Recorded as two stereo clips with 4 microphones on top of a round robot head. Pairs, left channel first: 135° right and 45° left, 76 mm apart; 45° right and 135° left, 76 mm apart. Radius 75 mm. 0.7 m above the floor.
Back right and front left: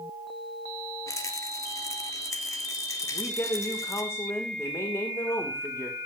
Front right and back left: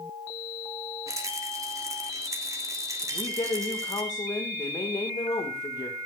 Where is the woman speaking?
80° right, 2.5 m.